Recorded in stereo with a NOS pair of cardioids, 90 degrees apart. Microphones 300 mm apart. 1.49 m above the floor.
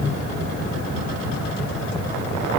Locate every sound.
Only background noise.